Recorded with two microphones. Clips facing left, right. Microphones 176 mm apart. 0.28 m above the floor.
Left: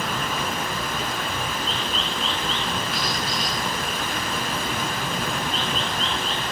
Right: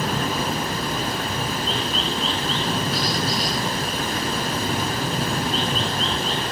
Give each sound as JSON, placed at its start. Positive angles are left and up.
{"t": 0.0, "sound": "running water", "side_deg": -40, "distance_m": 1.0}